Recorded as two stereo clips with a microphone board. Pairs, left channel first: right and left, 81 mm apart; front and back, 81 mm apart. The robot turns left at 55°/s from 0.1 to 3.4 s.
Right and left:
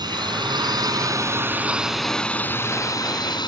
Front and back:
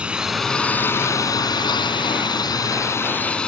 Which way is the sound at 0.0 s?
105° left.